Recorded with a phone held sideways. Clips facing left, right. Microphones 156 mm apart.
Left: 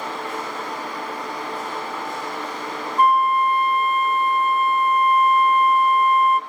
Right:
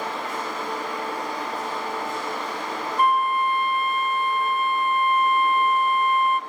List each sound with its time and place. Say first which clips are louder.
3.0 s a flute: left 4 dB; 40° left (ahead or behind), 0.5 m